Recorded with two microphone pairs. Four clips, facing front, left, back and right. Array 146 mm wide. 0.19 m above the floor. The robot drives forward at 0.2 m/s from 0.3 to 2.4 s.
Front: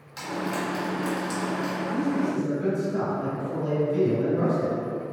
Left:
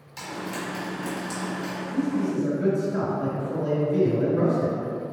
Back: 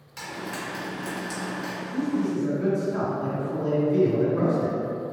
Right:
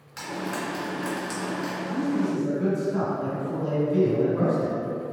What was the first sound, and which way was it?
Frying, 70° right.